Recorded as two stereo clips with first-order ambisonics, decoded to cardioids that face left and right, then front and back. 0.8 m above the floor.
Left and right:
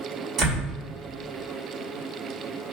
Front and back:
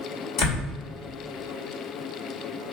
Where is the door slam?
30° right, 2.5 m.